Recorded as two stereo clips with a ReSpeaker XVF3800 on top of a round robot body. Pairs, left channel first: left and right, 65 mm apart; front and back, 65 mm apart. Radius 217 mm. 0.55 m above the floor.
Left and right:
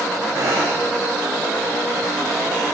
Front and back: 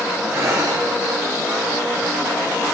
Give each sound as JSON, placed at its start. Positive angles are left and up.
{"t": 0.3, "sound": "breathing", "azimuth_deg": -130, "distance_m": 9.5}